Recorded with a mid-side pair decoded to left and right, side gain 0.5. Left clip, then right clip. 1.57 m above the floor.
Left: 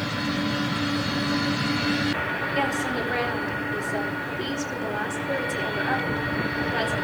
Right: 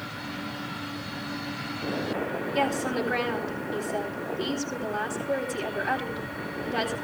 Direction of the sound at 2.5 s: 15° right.